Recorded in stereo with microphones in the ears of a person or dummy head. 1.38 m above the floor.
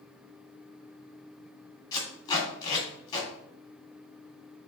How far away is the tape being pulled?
About 2.5 m.